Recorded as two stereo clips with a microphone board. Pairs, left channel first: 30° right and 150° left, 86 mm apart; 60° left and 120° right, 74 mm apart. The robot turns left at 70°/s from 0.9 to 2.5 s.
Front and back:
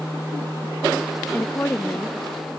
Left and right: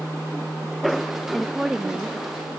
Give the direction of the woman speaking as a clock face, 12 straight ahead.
1 o'clock.